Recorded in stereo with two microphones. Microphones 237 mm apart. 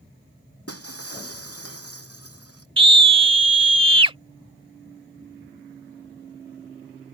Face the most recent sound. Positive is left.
turn(degrees=-20)  # may be behind; listen again after turning